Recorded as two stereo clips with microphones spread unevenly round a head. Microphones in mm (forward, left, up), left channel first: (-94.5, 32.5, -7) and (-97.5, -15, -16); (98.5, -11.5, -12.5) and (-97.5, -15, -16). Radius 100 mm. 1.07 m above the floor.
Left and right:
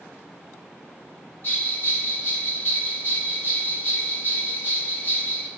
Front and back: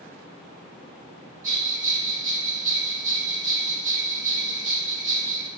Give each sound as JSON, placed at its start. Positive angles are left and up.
{"t": 1.4, "sound": "a bell", "azimuth_deg": 125, "distance_m": 2.0}